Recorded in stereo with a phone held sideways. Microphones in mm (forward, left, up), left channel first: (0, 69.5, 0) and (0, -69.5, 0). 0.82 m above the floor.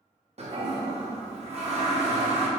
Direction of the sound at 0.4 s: 50° right (ahead or behind).